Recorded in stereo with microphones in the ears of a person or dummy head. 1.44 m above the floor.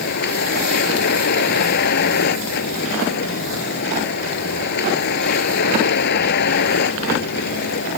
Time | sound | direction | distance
0.0 | a vehicle | 55° left (ahead or behind) | ?